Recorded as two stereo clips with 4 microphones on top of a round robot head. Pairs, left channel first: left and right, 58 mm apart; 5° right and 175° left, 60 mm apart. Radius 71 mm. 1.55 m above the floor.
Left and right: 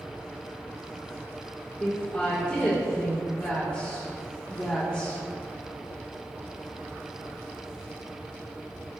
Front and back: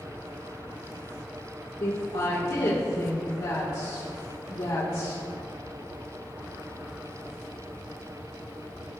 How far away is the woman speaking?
About 2 m.